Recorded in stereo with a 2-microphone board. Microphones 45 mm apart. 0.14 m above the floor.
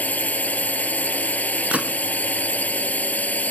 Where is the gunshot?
30° right (ahead or behind).